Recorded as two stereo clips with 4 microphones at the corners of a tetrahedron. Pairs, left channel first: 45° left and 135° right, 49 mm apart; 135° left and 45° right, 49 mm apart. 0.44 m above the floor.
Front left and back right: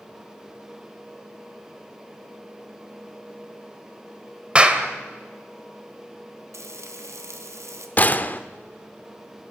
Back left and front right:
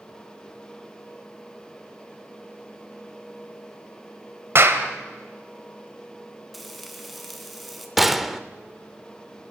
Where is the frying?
135° right, 3 m.